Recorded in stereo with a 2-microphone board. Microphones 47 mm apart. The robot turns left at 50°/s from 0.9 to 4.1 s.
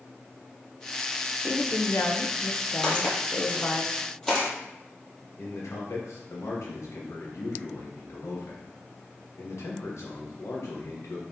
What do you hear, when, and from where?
1.4 s a woman speaking: 150° left, 0.5 m; by 3.8 s 25° left, 0.5 m
2.8 s footsteps: 15° left (ahead or behind), 1.7 m
5.4 s a man speaking: 80° left, 1.0 m